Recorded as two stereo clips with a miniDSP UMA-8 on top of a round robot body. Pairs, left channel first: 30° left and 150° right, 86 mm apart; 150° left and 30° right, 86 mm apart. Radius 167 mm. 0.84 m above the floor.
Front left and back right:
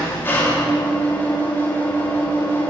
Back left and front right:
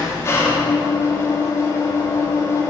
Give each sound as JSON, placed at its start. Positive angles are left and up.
{"t": 0.0, "sound": "an engine running", "azimuth_deg": 95, "distance_m": 5.5}